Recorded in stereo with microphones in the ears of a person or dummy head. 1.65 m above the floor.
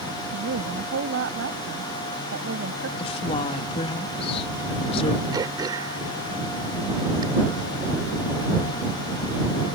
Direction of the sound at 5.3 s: 20° right (ahead or behind).